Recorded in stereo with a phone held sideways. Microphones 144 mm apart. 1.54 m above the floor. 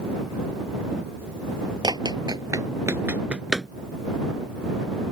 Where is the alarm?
No alarm in this recording.